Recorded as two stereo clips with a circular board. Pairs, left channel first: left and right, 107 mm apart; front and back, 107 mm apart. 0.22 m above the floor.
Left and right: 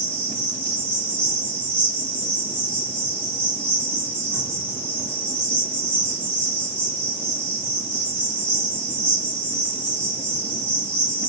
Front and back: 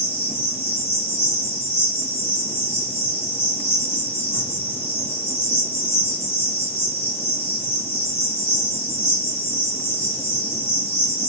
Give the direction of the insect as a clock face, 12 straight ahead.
12 o'clock.